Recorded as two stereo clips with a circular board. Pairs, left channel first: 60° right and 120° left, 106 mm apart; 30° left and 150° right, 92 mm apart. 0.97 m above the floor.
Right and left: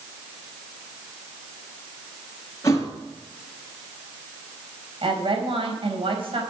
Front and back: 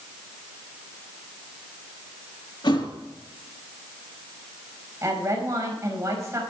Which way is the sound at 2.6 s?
Straight ahead.